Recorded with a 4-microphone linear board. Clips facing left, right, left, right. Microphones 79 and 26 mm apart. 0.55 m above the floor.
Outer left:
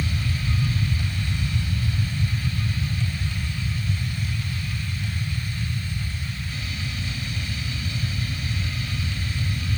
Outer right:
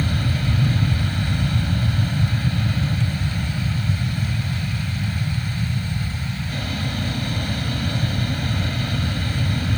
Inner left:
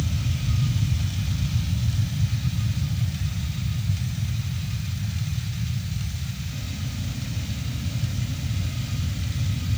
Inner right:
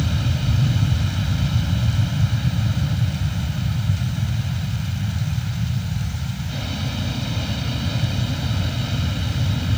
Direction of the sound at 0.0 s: 55° right (ahead or behind).